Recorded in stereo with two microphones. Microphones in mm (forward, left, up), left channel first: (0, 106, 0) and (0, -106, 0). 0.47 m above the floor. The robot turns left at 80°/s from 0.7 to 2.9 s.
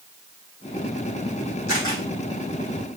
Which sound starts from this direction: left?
A camera shutter, at 1.7 s.